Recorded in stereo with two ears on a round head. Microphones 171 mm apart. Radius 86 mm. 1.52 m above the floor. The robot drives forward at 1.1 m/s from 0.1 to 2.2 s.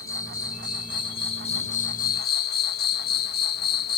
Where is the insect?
20° left (ahead or behind); by 4.0 s 55° left (ahead or behind).